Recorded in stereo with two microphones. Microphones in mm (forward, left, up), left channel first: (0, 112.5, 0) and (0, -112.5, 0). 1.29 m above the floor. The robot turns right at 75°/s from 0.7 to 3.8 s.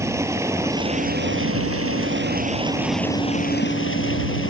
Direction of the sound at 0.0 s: 170° right.